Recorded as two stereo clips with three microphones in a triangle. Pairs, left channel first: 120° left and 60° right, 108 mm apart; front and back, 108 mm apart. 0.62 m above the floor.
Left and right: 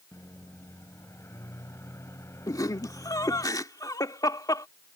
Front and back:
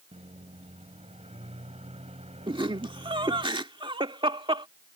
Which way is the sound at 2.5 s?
165° left.